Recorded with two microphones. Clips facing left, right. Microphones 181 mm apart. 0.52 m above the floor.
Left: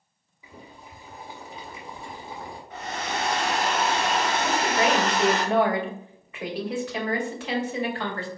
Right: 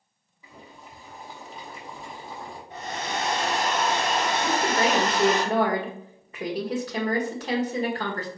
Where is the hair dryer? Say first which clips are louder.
Even; 35° right (ahead or behind), 1.8 m.